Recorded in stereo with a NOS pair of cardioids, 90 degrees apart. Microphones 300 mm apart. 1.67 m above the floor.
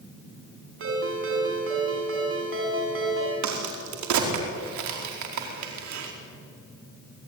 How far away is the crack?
About 4.5 m.